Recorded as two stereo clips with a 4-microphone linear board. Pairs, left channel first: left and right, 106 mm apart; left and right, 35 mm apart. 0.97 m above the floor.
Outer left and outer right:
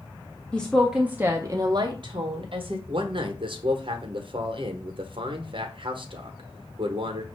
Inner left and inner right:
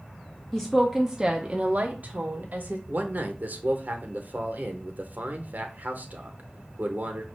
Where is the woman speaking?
10° left (ahead or behind), 0.6 m; by 2.8 s 65° right (ahead or behind), 1.0 m.